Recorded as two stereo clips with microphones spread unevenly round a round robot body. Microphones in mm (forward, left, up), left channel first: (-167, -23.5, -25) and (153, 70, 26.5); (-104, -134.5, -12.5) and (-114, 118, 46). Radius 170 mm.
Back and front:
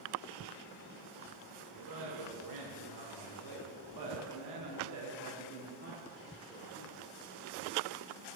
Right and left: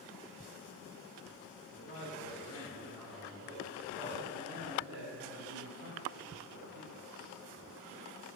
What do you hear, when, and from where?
1.7 s a man speaking: 20° right, 2.5 m; by 7.0 s 105° left, 1.8 m